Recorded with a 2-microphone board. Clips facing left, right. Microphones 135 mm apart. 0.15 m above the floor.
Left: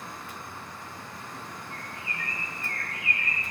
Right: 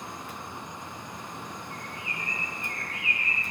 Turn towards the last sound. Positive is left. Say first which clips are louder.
# right 1 dB
turn(degrees=-20)  # may be behind; listen again after turning